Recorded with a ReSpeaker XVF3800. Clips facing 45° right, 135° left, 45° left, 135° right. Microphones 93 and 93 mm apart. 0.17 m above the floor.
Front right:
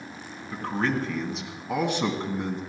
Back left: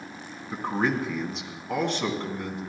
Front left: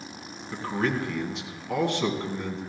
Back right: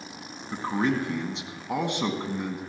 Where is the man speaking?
170° right, 1.9 m; by 2.6 s 75° right, 1.9 m.